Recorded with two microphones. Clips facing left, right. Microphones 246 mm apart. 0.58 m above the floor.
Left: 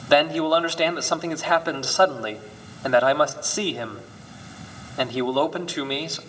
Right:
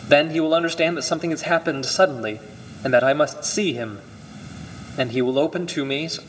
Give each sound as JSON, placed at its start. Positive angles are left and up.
{"t": 0.1, "sound": "a man speaking", "side_deg": -25, "distance_m": 1.0}